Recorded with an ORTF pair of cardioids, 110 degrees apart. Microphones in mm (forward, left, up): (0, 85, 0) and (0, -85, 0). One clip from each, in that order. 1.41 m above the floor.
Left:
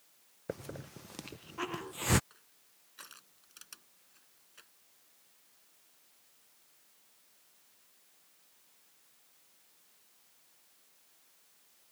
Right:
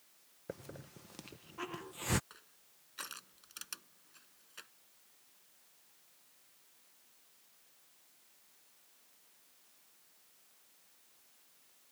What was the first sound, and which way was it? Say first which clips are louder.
A hiss: left 5 dB; 25° left.